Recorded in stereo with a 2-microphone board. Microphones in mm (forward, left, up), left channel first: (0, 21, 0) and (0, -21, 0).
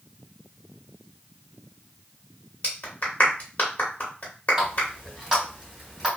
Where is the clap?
35° left (ahead or behind), 1.1 m.